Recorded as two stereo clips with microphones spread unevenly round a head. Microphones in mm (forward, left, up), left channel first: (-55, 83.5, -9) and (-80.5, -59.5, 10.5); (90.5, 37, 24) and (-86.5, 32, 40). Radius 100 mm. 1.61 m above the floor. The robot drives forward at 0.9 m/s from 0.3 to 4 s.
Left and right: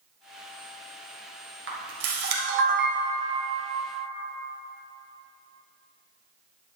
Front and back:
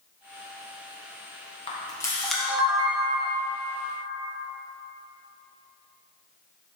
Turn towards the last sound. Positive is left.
turn(degrees=-140)